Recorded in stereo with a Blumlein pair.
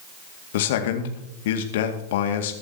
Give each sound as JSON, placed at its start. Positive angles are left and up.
{"t": 0.5, "sound": "a man speaking", "azimuth_deg": 55, "distance_m": 2.0}